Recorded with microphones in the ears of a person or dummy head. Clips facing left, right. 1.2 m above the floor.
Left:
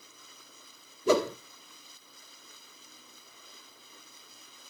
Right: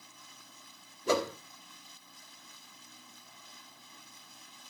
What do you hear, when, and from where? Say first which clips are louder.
1.1 s a whoosh: left 5 dB; 65° left (ahead or behind), 1.0 m